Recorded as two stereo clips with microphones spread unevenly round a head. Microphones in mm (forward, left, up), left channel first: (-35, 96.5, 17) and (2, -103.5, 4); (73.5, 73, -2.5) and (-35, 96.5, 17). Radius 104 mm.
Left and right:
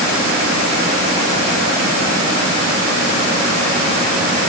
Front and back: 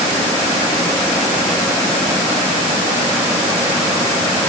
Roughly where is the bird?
I don't hear a bird.